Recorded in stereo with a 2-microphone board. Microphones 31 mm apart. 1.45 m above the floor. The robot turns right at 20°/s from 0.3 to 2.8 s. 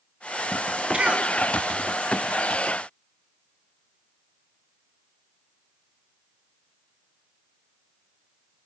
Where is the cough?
35° right (ahead or behind), 2.5 m; by 1.3 s 45° right (ahead or behind), 2.5 m.